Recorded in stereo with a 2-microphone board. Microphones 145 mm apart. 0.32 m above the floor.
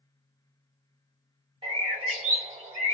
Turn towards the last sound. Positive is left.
turn(degrees=-40)  # may be behind; listen again after turning